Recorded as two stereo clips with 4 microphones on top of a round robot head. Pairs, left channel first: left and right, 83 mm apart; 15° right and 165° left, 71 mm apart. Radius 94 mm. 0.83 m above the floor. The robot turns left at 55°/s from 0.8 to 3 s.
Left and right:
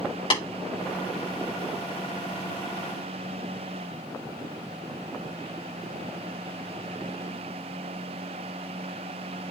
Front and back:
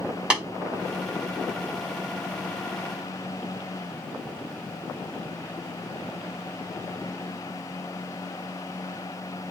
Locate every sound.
0.3 s tapping: 90° left, 7 m